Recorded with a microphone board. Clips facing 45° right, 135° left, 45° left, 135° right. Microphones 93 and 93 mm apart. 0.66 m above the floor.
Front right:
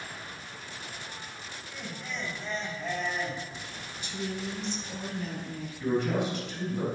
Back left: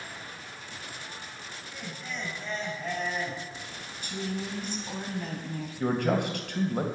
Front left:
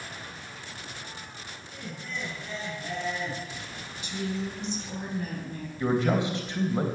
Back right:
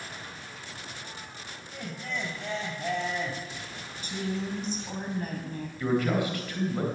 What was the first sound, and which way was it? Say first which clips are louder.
Laughter: front right 1 dB, back right 3 dB; 135° right.